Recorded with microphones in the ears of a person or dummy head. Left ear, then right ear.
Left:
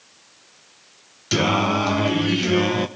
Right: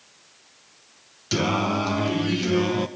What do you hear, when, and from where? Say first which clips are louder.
1.3 s singing: left 4 dB; 10° left (ahead or behind), 0.8 m